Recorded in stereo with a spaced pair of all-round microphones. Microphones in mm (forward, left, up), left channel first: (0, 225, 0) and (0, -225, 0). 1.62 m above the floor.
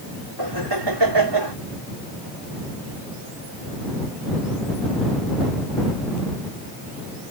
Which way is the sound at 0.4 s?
60° right (ahead or behind).